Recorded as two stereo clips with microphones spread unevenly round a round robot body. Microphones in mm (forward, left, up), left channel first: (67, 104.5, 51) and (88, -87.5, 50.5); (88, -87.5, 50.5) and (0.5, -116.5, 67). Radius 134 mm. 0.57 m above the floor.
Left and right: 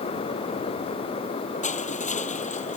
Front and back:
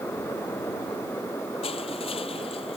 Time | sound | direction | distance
1.6 | crushing | 45° left | ?